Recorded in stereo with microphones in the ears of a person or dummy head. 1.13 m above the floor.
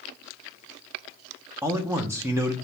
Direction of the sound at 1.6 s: 15° right (ahead or behind).